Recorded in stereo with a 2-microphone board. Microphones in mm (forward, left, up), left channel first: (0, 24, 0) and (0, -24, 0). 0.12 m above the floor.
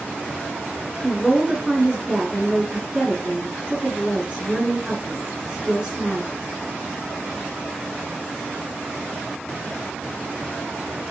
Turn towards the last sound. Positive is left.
turn(degrees=-20)  # may be behind; listen again after turning